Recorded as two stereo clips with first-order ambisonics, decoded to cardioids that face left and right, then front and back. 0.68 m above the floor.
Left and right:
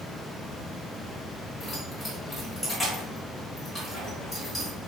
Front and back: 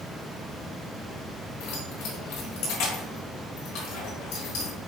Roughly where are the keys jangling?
Ahead.